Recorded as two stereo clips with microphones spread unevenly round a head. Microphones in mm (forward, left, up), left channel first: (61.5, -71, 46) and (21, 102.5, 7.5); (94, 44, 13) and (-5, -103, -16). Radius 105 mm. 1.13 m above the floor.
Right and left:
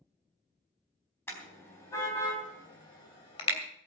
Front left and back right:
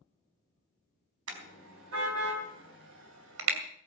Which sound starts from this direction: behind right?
A car horn, at 1.3 s.